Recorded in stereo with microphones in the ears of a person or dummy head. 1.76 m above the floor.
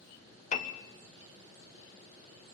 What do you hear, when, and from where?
0.5 s a piano: 40° left (ahead or behind), 1.1 m